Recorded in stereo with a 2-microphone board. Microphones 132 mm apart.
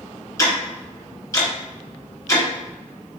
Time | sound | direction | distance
0.4 | ticking | 25° left (ahead or behind) | 1.3 m